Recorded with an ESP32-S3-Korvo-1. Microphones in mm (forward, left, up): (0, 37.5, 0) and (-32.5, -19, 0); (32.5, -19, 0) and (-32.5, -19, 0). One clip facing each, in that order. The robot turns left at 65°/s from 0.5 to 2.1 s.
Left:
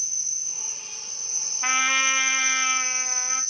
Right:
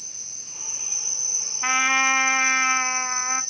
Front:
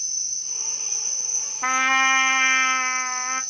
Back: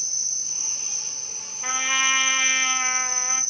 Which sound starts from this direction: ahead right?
A trumpet, at 1.6 s.